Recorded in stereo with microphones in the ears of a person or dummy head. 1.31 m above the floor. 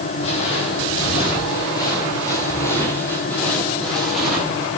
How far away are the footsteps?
About 5 m.